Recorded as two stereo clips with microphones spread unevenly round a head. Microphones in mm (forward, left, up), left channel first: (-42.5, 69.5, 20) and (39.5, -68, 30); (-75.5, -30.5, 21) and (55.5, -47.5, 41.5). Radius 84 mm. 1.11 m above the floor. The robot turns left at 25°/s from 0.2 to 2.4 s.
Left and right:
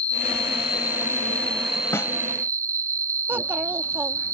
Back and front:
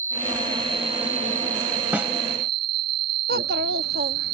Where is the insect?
70° left; by 4.3 s 15° left.